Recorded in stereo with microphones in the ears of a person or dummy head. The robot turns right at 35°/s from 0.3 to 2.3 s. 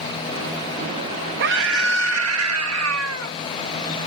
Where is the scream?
115° right; by 3.3 s 85° right.